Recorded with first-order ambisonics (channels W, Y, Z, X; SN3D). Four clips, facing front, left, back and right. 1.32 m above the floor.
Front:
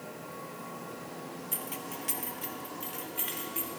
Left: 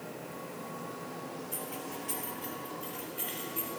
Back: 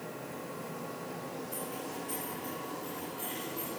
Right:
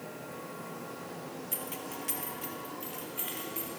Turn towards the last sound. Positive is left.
turn(degrees=-25)